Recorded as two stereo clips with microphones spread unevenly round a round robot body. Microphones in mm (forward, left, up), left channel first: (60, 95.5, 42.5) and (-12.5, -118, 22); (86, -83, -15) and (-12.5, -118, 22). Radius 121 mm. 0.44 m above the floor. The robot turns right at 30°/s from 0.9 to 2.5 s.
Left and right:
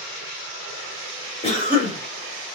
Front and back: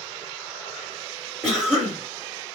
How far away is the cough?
About 1.0 m.